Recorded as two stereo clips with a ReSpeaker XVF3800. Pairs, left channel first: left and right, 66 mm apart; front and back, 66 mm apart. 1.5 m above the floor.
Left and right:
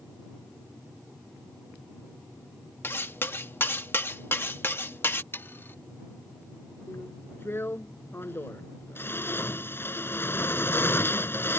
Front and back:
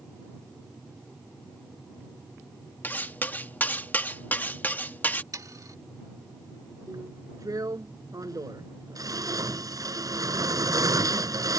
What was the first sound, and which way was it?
Cutlery clinking, 50° left.